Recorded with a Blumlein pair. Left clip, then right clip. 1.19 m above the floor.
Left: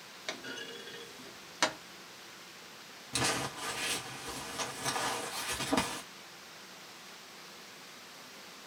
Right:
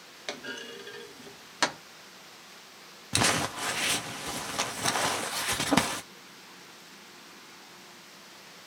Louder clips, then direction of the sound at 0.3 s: Right 3 dB; 10° right.